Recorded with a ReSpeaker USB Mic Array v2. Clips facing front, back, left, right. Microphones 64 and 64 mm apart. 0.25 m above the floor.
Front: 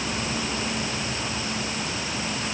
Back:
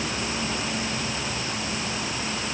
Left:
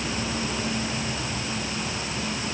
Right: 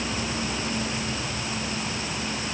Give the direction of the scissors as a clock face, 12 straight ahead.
No scissors in this recording.